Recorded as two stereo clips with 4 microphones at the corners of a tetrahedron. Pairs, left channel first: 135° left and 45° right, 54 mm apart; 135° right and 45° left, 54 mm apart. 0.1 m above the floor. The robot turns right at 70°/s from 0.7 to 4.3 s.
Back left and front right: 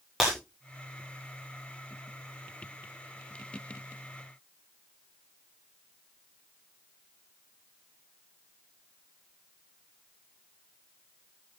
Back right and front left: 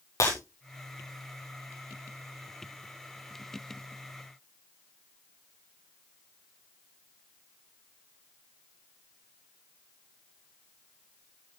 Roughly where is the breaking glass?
Behind right.